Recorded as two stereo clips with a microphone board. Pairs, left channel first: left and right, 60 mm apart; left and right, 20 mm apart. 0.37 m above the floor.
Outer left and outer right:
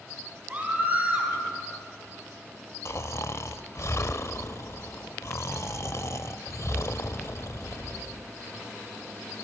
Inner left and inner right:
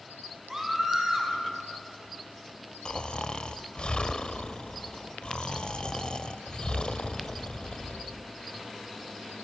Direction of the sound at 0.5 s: 25° right (ahead or behind).